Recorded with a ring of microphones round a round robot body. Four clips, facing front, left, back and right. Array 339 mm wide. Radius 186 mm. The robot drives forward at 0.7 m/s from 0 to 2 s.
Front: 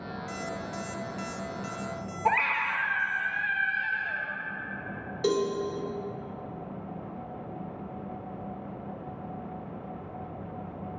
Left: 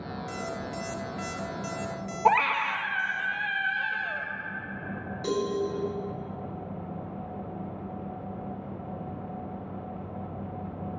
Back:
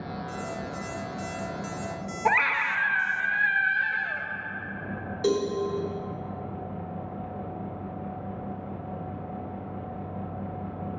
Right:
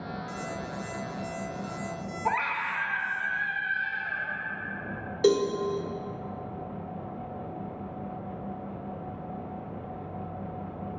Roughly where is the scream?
Behind left.